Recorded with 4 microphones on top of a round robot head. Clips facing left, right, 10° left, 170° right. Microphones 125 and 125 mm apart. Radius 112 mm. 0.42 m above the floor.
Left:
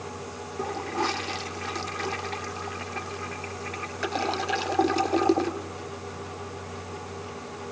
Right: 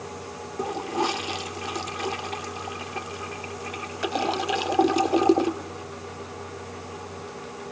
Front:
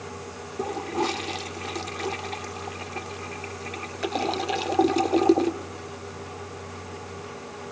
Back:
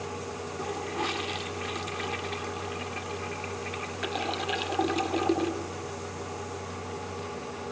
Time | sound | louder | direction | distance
0.6 | a toilet flushing | right 2 dB, front 7 dB | 25° right | 1.1 m